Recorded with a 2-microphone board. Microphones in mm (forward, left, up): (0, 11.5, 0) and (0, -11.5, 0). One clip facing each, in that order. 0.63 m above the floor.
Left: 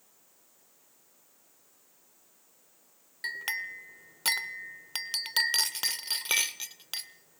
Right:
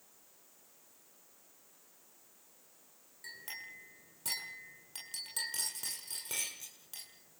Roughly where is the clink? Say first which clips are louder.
Left 13 dB; left.